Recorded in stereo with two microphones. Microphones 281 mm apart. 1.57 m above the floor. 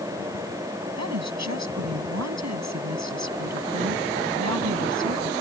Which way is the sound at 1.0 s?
80° right.